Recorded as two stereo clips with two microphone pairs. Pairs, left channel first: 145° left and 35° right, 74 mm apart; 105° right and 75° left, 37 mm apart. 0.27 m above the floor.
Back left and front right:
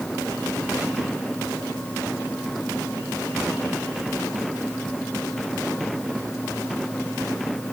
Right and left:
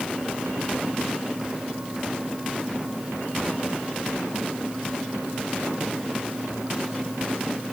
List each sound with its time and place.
Only background noise.